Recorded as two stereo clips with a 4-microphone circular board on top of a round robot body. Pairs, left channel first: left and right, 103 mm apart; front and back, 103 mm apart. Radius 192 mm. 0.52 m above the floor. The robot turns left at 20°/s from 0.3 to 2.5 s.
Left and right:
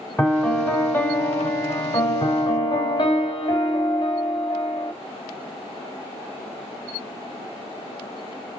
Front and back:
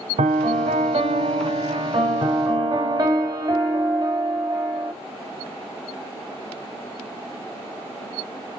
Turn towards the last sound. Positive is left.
turn(degrees=130)